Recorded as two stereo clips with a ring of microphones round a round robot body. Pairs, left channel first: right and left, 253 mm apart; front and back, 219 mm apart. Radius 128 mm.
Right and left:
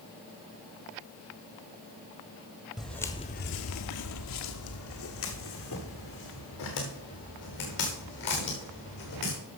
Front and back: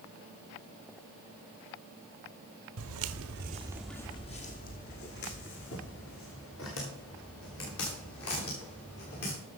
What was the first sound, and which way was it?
Footsteps, straight behind.